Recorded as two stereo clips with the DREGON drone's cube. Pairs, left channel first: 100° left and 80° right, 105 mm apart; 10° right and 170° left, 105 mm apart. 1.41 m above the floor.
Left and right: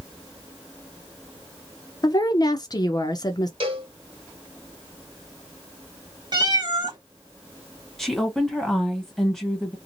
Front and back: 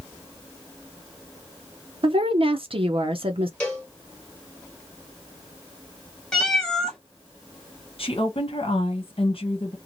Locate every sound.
2.0 s a woman speaking: 145° left, 0.5 m
3.6 s a cowbell: 85° right, 1.4 m
6.3 s a cat meowing: 95° right, 1.0 m
8.0 s a woman speaking: 15° left, 1.3 m